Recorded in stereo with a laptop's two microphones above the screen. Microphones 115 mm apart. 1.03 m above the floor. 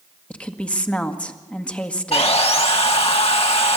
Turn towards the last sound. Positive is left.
turn(degrees=55)  # may be behind; listen again after turning